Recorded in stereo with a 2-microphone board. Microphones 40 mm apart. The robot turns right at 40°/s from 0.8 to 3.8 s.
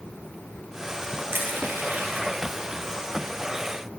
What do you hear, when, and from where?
1.3 s crushing: 65° right (ahead or behind), 2.5 m; by 2.3 s 40° right (ahead or behind), 2.5 m